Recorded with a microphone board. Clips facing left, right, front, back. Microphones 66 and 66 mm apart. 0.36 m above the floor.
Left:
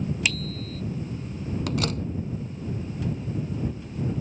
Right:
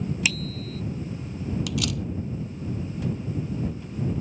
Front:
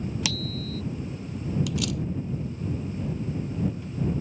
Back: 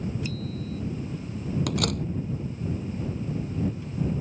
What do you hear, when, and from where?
0.2 s a bicycle bell: straight ahead
1.7 s a door slam: 140° left